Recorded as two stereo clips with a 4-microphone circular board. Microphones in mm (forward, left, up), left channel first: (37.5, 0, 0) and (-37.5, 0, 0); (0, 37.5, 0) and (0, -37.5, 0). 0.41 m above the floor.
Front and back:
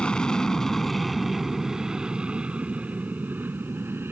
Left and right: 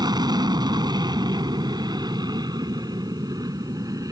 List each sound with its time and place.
0.0 s an aircraft: 80° right; by 4.1 s 125° right